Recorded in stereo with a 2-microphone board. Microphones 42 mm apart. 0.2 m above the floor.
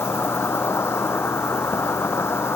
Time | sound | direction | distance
0.0 | an insect | 80° left | ?